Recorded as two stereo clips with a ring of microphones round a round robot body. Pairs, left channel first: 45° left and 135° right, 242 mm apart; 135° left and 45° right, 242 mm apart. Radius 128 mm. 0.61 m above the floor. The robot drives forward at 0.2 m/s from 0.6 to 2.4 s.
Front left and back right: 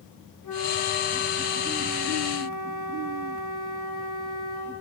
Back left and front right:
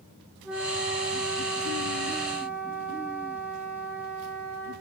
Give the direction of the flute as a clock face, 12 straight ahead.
10 o'clock.